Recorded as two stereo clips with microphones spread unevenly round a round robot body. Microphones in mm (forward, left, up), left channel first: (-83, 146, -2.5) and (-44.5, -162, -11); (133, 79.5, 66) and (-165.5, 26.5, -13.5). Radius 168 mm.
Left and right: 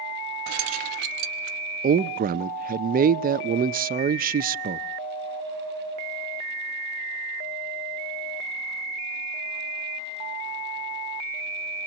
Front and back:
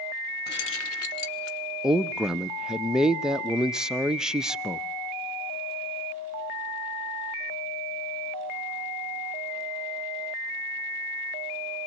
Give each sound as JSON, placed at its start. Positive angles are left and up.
{"t": 0.5, "sound": "keys jangling", "azimuth_deg": -55, "distance_m": 0.6}
{"t": 1.8, "sound": "a man speaking", "azimuth_deg": -110, "distance_m": 0.6}